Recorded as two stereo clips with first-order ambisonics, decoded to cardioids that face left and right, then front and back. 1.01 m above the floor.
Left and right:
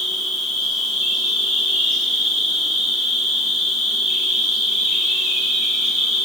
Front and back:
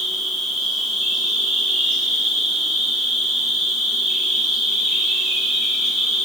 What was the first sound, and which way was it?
An insect, 55° right.